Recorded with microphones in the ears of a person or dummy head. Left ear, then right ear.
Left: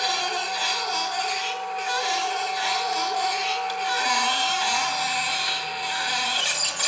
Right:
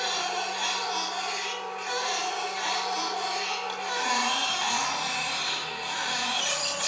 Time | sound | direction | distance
0.0 | a machine running | 25° left (ahead or behind) | 1.8 m